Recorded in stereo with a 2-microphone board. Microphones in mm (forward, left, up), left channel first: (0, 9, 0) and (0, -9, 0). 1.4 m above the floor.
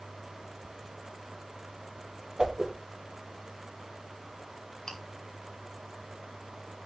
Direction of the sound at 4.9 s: 30° left (ahead or behind).